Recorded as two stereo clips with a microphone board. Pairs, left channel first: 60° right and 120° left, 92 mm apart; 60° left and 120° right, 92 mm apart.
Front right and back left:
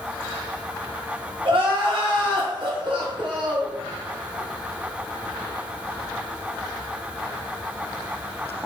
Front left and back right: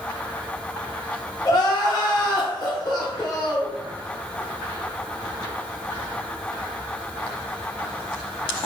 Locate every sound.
1.4 s crying: 100° left, 0.7 m